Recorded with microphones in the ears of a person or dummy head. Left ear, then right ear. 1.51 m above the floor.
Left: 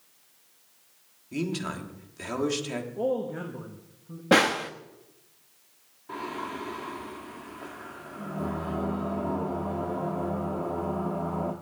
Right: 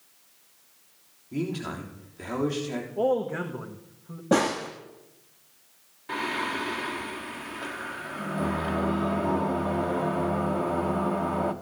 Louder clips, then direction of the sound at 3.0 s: Right 4 dB; 45° right (ahead or behind).